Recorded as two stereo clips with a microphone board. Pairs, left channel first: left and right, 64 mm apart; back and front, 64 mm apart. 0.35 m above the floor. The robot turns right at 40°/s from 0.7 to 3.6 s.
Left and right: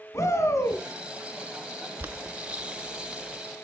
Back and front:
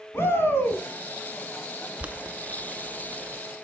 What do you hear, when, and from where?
0.1 s a shout: 130° left, 2.5 m; by 0.8 s 135° left, 2.5 m
2.0 s boiling: 55° right, 0.6 m; by 3.4 s straight ahead, 0.6 m